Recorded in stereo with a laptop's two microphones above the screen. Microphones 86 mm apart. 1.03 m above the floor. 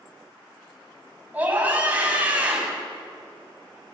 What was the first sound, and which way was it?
A scream, 15° right (ahead or behind).